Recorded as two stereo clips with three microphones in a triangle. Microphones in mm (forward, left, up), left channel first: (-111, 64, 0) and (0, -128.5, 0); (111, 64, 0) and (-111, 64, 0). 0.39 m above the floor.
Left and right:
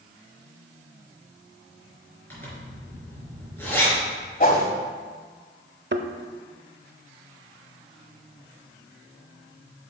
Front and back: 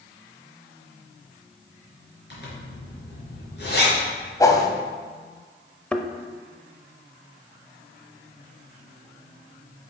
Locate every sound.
2.3 s a zipper: 40° left, 4 m
4.4 s a whoosh: 75° left, 1.3 m
5.9 s a thud: 85° right, 0.7 m